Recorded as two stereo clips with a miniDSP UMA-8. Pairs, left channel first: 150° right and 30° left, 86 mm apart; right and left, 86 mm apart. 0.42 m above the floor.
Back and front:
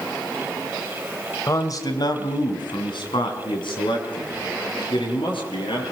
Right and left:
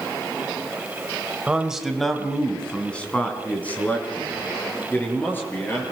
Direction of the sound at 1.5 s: 165° left.